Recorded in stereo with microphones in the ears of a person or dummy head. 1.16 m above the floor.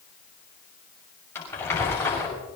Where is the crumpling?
15° left (ahead or behind), 6.5 m.